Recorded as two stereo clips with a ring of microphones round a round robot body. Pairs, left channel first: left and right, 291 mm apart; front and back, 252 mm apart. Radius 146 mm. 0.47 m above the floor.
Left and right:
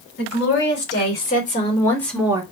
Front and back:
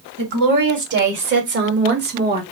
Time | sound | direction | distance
0.2 | a woman speaking | 135° left | 3 m